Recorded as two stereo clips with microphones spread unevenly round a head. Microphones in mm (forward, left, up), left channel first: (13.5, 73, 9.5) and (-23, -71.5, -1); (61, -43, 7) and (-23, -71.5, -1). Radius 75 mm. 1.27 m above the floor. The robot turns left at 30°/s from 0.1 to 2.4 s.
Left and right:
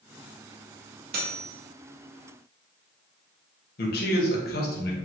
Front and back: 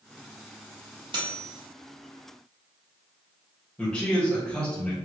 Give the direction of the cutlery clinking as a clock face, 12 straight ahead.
4 o'clock.